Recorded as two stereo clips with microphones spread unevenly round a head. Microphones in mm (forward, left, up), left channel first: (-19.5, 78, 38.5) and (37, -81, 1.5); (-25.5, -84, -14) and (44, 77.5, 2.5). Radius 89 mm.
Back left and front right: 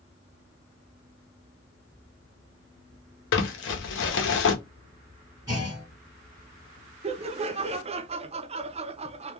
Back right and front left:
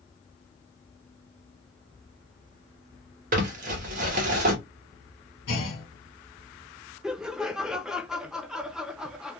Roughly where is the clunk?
Behind right.